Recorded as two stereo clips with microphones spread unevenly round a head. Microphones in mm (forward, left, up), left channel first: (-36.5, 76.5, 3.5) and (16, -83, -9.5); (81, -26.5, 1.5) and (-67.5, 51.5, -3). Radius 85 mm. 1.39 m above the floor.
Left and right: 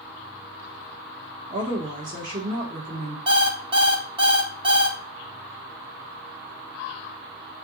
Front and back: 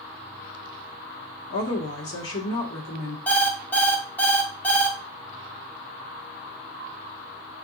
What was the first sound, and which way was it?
A woman speaking, 25° right.